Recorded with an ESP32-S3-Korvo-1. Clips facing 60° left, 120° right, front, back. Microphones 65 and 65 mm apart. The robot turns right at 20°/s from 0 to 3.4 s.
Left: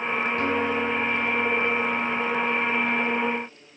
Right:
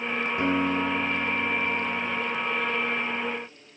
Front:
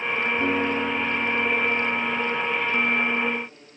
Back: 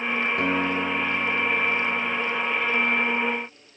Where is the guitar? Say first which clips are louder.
Right 3 dB, front 1 dB; 170° left, 3.5 m; by 2.2 s 155° right, 3.5 m.